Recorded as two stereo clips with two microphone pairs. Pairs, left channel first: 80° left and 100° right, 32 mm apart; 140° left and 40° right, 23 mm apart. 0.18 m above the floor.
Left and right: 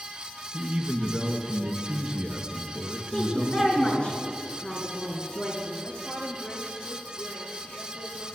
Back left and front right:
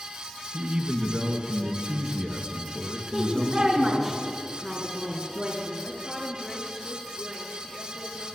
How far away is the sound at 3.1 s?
About 3 m.